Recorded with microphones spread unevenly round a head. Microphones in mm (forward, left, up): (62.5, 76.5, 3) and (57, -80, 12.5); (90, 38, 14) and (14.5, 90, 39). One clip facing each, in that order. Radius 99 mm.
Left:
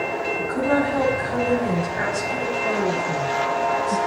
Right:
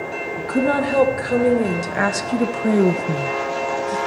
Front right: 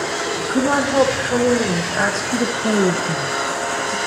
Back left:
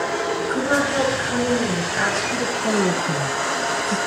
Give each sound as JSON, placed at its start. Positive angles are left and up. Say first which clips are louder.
{"t": 0.4, "sound": "a woman speaking", "louder": "right 3 dB, front right 4 dB", "azimuth_deg": -90, "distance_m": 2.5}